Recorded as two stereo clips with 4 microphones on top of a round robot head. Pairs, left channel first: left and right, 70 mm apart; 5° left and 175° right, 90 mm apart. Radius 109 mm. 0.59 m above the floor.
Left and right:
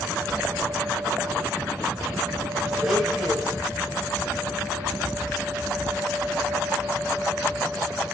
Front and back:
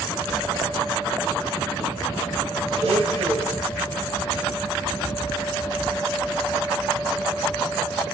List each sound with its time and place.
2.8 s a blender: 175° right, 2 m